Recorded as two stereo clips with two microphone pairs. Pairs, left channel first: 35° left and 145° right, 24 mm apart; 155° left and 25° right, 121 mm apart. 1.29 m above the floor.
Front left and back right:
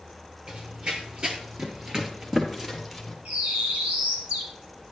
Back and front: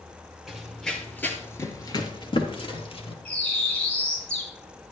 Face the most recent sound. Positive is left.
turn(degrees=-120)